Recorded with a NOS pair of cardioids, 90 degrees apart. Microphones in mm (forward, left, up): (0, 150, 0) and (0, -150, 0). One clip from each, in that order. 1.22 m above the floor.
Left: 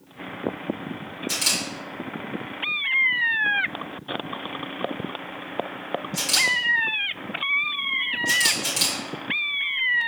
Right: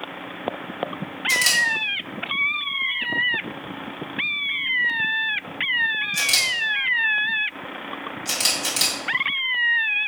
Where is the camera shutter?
20° right, 3 m.